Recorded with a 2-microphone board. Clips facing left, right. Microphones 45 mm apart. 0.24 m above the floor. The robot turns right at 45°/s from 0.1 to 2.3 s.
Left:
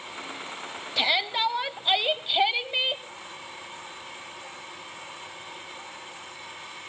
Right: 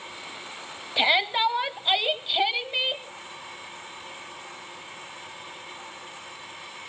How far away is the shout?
About 1.0 m.